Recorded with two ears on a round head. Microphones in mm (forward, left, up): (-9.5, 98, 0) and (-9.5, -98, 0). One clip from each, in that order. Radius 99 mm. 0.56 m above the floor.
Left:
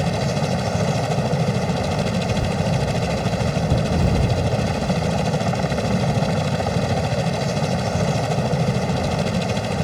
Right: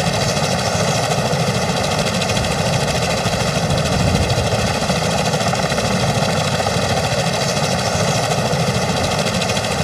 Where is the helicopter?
50° right (ahead or behind).